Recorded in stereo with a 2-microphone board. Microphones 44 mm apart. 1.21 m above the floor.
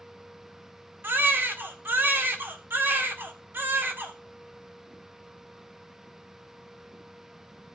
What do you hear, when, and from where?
1.0 s a baby crying: 55° right (ahead or behind), 1.9 m